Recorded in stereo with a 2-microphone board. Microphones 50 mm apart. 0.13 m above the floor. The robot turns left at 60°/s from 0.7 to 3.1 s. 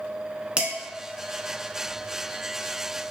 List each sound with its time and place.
0.6 s dishes clattering: 20° right (ahead or behind), 0.9 m